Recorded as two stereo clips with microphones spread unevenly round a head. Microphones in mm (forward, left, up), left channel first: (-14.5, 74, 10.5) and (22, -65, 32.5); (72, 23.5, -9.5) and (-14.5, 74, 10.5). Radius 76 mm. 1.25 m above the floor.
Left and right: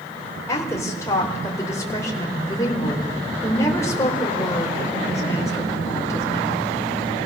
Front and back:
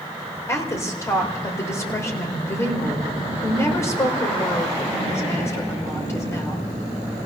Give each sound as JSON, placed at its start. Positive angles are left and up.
{"t": 0.5, "sound": "a woman speaking", "azimuth_deg": 35, "distance_m": 4.5}